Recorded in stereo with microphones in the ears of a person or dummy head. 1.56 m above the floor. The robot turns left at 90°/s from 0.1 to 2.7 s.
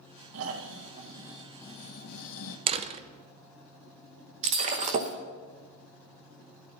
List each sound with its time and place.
0.3 s snoring: 85° right, 1.6 m; by 2.6 s 75° left, 1.6 m
2.7 s a door slam: 35° right (ahead or behind), 0.6 m
4.4 s breaking glass: 25° right (ahead or behind), 0.9 m